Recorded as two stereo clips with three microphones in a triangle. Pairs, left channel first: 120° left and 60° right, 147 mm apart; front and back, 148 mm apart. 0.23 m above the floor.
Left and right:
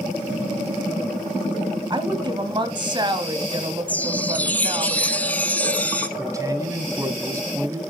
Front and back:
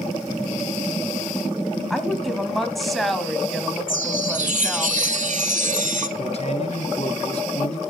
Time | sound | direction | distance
1.9 | a woman speaking | 90° right | 1.2 m
3.9 | a chime | 160° right | 0.9 m
6.2 | a man speaking | straight ahead | 1.7 m